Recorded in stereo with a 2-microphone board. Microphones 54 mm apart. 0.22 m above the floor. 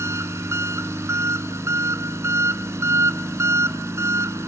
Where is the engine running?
65° right (ahead or behind), 0.9 m.